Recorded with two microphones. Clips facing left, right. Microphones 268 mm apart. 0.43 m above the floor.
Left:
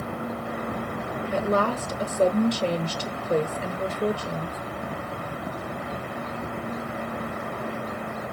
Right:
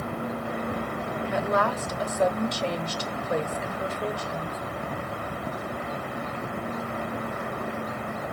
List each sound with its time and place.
1.3 s a woman speaking: 35° left (ahead or behind), 1.2 m